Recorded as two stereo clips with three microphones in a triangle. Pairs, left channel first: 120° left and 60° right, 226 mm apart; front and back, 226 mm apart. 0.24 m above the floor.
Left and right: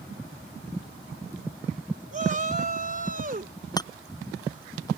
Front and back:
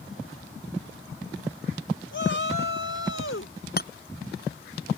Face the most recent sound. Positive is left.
turn(degrees=45)